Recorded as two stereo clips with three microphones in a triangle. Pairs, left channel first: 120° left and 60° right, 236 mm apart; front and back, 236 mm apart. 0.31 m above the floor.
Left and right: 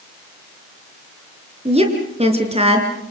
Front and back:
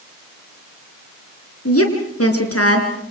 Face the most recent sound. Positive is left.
turn(degrees=5)